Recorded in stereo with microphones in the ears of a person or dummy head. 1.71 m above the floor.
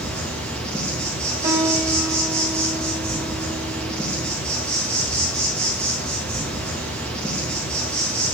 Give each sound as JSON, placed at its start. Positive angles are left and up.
{"t": 0.0, "sound": "an insect", "side_deg": 0, "distance_m": 1.4}
{"t": 1.4, "sound": "a piano", "side_deg": -25, "distance_m": 2.5}